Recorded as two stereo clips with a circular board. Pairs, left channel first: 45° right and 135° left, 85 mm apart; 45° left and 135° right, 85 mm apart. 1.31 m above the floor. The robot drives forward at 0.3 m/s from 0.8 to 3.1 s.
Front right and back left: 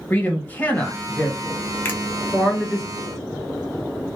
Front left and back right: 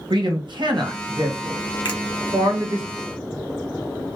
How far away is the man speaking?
About 1.2 m.